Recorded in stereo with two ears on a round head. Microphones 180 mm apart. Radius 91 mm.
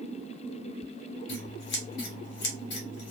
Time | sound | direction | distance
1.3 | scissors | 55° left (ahead or behind) | 1.1 m